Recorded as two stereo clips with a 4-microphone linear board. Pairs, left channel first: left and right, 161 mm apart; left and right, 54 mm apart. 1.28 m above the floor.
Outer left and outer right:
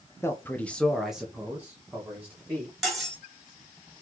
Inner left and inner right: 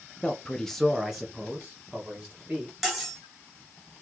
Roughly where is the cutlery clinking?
Centre.